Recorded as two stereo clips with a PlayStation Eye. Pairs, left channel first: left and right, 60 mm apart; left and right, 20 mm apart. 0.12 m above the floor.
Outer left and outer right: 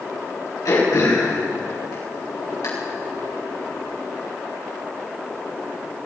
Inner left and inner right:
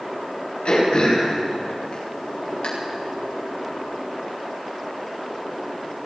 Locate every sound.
0.7 s throat clearing: 75° left (ahead or behind), 7 m